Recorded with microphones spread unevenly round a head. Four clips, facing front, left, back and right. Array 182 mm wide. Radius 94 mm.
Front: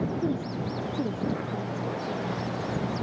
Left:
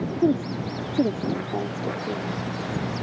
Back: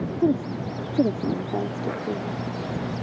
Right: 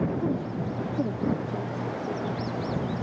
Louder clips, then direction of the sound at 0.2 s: Left 6 dB, back 6 dB; 130° left.